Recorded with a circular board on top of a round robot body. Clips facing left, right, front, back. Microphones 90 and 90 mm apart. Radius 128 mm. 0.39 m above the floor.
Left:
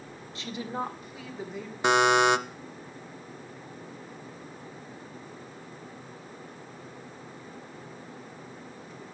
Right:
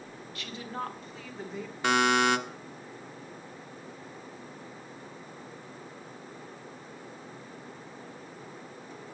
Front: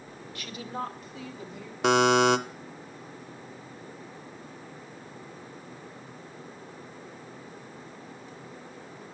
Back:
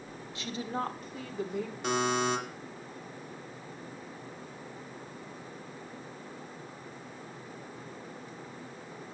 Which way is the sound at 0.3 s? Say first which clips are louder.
Left 4 dB, back 1 dB; 130° left.